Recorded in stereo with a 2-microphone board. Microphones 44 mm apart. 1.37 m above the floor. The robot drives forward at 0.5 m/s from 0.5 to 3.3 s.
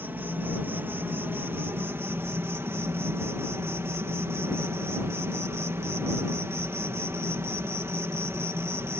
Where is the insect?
50° right (ahead or behind); by 9.0 s 75° right (ahead or behind).